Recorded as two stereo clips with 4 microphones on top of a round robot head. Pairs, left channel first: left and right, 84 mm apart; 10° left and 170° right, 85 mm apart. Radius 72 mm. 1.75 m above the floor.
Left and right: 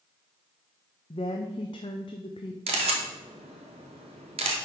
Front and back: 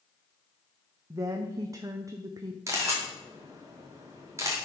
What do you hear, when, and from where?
1.1 s a woman speaking: 135° left, 0.5 m
2.7 s a camera shutter: 105° right, 1.2 m